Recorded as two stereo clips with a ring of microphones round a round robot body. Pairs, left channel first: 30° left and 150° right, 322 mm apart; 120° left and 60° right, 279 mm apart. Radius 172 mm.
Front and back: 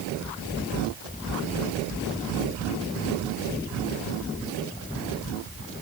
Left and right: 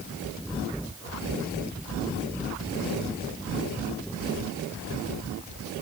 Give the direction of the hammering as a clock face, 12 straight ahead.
No hammering in this recording.